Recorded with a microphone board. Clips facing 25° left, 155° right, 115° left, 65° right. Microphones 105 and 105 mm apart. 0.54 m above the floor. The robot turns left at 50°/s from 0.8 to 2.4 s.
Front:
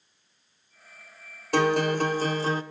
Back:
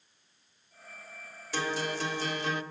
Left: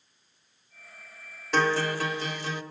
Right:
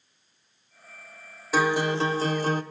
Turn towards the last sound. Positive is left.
turn(degrees=-25)